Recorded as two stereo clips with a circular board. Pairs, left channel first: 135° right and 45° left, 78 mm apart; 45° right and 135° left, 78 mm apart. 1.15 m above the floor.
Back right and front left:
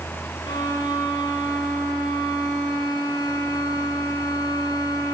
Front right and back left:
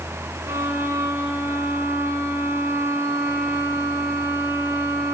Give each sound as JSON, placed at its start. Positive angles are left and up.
{"t": 0.5, "sound": "a violin", "azimuth_deg": -165, "distance_m": 5.0}